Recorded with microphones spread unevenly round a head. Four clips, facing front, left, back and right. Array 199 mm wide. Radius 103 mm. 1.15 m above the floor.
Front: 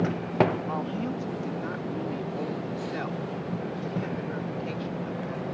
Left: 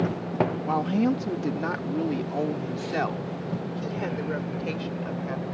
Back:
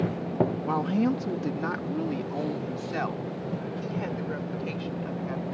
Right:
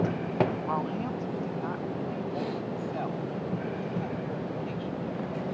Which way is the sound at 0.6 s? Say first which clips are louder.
Left 7 dB, back 5 dB; 140° left.